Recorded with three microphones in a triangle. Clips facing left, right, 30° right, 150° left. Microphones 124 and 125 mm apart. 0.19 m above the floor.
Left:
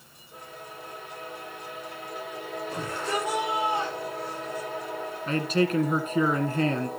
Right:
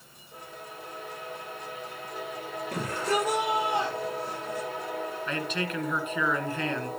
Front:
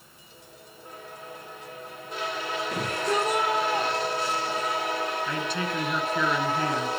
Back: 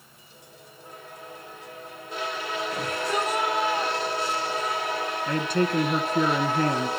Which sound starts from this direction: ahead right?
A shout, at 2.7 s.